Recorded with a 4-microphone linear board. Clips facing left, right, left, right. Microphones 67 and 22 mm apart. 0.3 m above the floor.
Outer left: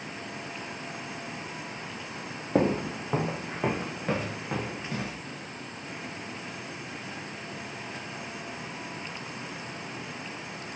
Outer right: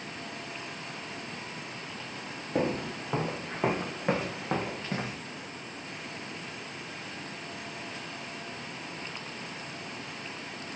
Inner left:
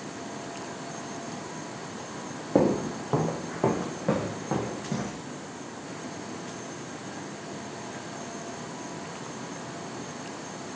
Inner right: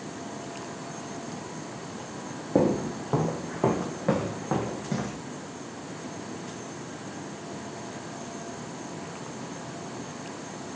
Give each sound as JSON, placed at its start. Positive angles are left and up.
{"t": 2.5, "sound": "footsteps", "side_deg": 30, "distance_m": 0.9}